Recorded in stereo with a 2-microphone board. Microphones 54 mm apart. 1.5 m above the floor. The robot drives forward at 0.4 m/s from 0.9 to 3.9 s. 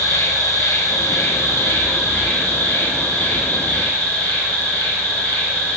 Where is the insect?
55° left (ahead or behind), 1.4 m; by 5.8 s 30° left (ahead or behind), 2.5 m.